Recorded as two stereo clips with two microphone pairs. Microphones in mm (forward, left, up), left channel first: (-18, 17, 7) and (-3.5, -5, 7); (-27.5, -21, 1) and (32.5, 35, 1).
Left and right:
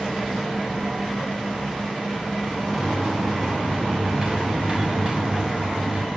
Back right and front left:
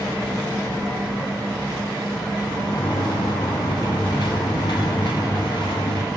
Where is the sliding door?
110° right, 6 m.